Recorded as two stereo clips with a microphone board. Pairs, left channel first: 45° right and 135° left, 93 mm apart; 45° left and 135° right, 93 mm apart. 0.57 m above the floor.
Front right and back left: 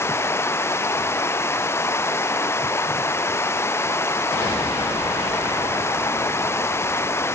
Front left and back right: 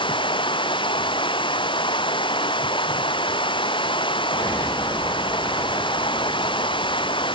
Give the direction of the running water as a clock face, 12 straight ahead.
11 o'clock.